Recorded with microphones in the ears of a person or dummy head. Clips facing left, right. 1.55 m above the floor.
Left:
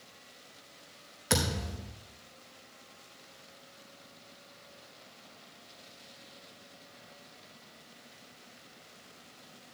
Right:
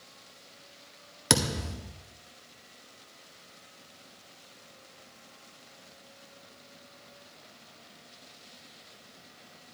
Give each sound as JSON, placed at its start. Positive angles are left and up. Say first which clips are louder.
{"t": 1.3, "sound": "a thud", "louder": "right 3 dB", "side_deg": -55, "distance_m": 1.6}